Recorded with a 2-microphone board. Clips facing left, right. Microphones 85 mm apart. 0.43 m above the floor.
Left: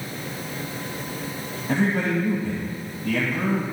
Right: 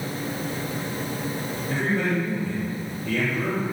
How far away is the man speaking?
About 2.5 m.